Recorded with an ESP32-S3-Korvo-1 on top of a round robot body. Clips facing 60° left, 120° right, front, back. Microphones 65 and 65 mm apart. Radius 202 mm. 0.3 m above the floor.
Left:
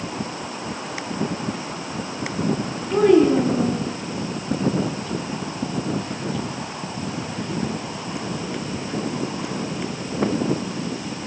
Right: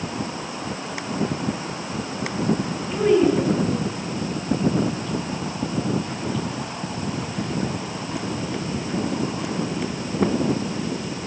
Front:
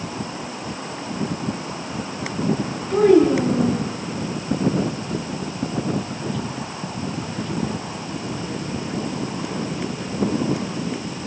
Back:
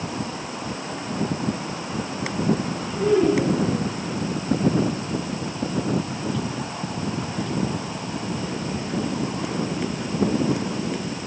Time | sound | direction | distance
2.9 | a child speaking | 35° left | 4.5 m